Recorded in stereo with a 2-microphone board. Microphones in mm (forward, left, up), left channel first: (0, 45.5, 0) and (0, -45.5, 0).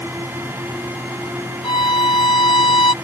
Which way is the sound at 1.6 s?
65° left (ahead or behind).